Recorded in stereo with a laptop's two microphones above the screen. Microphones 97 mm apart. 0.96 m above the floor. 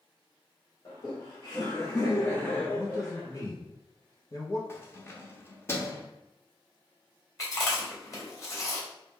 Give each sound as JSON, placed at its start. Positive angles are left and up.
{"t": 0.8, "sound": "laughter", "side_deg": 30, "distance_m": 1.1}
{"t": 2.7, "sound": "a man speaking", "side_deg": 35, "distance_m": 0.6}
{"t": 4.7, "sound": "keys jangling", "side_deg": 25, "distance_m": 0.9}
{"t": 7.4, "sound": "chewing", "side_deg": 35, "distance_m": 1.9}